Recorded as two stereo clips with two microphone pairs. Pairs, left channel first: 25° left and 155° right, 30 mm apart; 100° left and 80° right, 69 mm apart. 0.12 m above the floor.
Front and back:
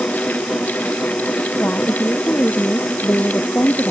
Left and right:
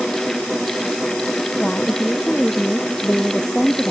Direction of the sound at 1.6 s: 25° left.